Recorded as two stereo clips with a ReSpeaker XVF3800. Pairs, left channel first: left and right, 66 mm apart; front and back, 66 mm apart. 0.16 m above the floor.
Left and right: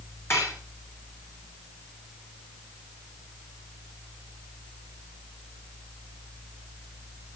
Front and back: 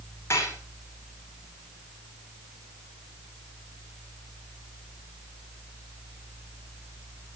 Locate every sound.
0.3 s dishes clattering: 45° left, 6.5 m